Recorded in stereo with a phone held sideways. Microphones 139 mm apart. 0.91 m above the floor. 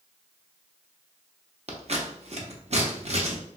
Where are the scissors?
55° right (ahead or behind), 0.7 m.